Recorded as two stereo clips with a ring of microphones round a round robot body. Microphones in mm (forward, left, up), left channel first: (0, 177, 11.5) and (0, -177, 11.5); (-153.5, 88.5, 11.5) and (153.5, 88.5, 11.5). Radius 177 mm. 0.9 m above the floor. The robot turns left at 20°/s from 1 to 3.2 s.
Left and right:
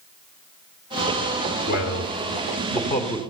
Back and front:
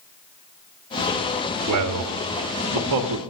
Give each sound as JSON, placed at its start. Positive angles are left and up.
{"t": 1.7, "sound": "a man speaking", "azimuth_deg": 40, "distance_m": 1.3}